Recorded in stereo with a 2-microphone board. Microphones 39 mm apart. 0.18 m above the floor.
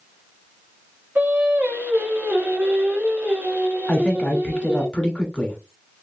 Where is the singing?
55° right (ahead or behind), 1.2 m.